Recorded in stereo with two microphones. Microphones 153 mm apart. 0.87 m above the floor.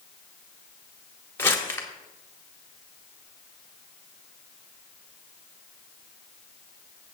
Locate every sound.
1.4 s crumpling: 15° left (ahead or behind), 1.8 m